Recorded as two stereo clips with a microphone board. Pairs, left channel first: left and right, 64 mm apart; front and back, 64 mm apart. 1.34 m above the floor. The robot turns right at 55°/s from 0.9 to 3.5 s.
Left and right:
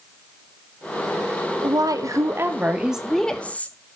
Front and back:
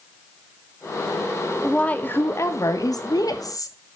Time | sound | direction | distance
1.6 | a woman speaking | 80° right | 1.7 m